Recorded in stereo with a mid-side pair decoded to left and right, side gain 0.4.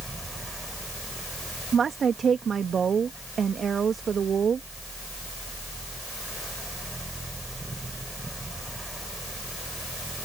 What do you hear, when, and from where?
0.0 s a fan: 15° right
1.7 s a woman speaking: 50° right